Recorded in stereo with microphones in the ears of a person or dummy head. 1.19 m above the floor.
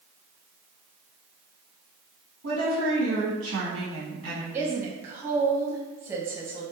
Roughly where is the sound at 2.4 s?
Right.